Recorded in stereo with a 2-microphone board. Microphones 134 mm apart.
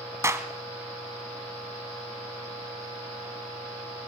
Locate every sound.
0.2 s a clap: 20° right (ahead or behind), 1.8 m